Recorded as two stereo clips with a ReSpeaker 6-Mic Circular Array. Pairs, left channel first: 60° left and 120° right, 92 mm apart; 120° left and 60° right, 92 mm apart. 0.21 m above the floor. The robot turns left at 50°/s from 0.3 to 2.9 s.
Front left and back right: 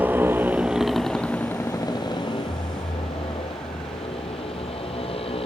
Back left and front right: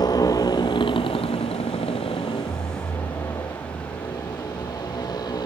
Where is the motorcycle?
165° left; by 5.5 s 75° left.